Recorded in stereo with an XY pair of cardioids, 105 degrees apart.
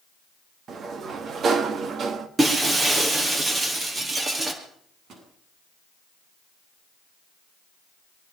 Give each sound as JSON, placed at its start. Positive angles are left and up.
{"t": 0.7, "sound": "a sliding door", "azimuth_deg": -55, "distance_m": 2.0}
{"t": 2.4, "sound": "breaking glass", "azimuth_deg": -30, "distance_m": 5.0}
{"t": 4.6, "sound": "a microwave", "azimuth_deg": -65, "distance_m": 8.5}